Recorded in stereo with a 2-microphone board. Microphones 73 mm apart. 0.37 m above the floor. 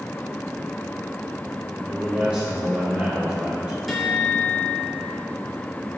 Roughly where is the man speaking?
Centre.